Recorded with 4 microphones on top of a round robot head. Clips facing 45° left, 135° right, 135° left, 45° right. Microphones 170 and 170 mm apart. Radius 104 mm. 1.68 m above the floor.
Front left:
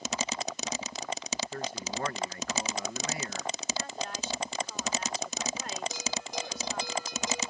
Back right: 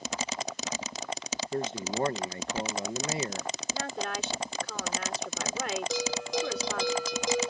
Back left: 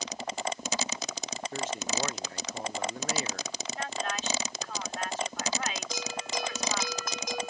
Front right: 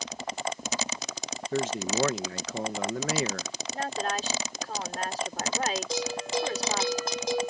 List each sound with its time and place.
1.5 s a man speaking: 70° right
3.7 s a woman speaking: 100° right
5.9 s a bell: 105° right